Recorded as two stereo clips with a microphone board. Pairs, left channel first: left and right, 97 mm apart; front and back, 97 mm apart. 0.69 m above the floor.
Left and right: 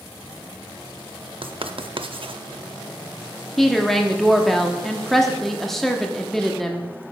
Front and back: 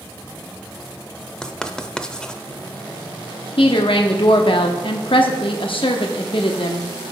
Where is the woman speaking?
5° left, 0.9 m.